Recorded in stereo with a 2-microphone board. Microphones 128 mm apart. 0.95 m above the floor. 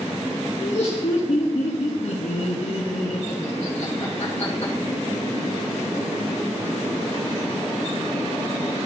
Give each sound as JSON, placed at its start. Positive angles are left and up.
{"t": 0.6, "sound": "laughter", "side_deg": 55, "distance_m": 1.1}